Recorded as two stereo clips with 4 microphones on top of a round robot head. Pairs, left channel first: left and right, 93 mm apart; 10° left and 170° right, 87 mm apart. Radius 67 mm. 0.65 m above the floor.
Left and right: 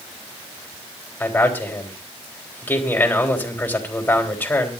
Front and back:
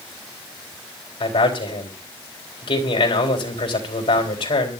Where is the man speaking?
20° left, 4 m.